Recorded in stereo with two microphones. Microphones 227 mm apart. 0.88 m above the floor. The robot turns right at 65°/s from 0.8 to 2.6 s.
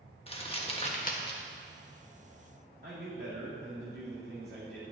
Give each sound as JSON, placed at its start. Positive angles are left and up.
{"t": 0.3, "sound": "crumpling", "side_deg": 25, "distance_m": 1.3}
{"t": 2.8, "sound": "a man speaking", "side_deg": -45, "distance_m": 2.5}